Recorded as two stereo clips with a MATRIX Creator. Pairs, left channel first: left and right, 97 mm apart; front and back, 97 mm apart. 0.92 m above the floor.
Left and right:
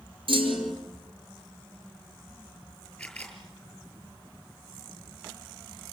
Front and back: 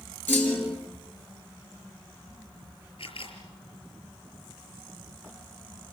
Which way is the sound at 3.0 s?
10° left.